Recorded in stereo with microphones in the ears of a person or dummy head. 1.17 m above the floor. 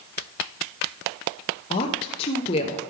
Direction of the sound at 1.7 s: 25° left (ahead or behind).